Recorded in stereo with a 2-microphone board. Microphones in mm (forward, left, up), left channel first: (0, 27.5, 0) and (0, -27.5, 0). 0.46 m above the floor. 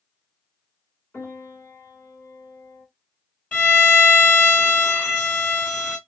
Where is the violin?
25° left (ahead or behind), 1.4 m.